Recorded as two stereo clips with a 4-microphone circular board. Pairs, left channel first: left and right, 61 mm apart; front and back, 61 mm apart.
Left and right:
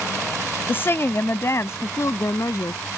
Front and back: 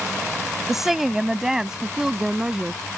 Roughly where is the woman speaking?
Left.